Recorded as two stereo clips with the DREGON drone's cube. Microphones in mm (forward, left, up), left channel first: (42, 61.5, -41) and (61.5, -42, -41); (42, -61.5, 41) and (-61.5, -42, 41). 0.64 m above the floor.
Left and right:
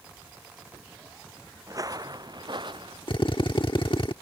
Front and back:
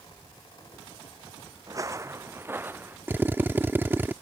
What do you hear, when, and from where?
1.7 s footsteps: 135° right; by 3.0 s 120° right
3.1 s a drill: 105° left